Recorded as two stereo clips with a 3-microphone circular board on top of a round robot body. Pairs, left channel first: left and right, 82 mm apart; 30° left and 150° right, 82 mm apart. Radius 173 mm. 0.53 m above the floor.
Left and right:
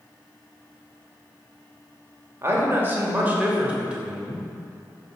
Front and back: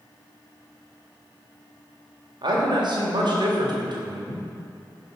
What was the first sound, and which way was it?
A man speaking, 145° right.